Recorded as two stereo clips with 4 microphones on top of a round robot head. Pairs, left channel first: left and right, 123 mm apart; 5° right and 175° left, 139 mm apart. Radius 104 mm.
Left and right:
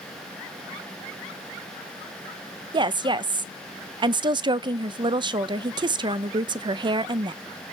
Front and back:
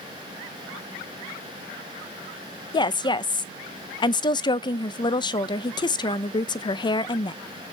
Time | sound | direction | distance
2.7 | a woman speaking | 55° right | 0.6 m